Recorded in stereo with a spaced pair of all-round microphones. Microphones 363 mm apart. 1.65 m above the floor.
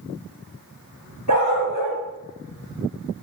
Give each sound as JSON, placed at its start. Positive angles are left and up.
{"t": 1.3, "sound": "a dog barking", "side_deg": -60, "distance_m": 3.5}